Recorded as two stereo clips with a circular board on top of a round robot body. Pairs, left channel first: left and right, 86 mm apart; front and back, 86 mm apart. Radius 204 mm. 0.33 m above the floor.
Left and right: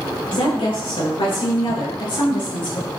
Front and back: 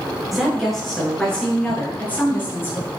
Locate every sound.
0.3 s a woman speaking: 90° left, 7 m; by 2.9 s 60° left, 7 m